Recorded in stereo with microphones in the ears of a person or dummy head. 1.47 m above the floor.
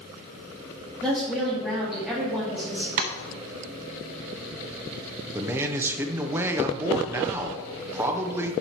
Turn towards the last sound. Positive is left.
turn(degrees=-10)  # may be behind; listen again after turning